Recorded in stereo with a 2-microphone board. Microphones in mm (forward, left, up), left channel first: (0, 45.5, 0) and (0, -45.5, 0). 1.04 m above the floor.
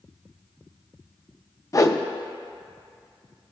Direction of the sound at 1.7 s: 35° left (ahead or behind).